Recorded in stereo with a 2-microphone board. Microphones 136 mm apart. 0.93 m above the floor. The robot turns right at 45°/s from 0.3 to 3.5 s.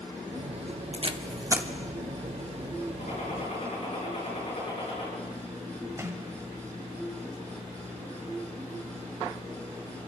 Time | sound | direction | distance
0.9 | tape being pulled | 50° right (ahead or behind) | 0.9 m
3.0 | a gunshot | 70° left (ahead or behind) | 7 m
6.0 | a sliding door | 20° right (ahead or behind) | 1.6 m